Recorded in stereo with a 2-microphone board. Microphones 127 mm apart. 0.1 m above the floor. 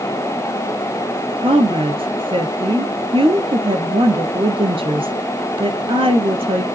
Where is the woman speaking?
45° right (ahead or behind), 1.9 m.